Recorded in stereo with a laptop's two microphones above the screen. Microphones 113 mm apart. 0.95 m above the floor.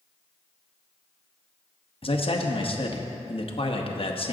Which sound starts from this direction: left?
A man speaking, at 2.0 s.